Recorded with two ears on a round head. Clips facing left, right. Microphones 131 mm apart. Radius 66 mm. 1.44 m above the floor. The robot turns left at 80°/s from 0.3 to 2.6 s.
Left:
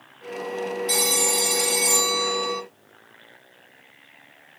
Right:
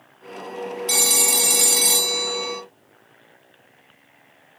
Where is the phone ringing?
35° right, 0.5 m; by 2.6 s 175° right, 0.5 m.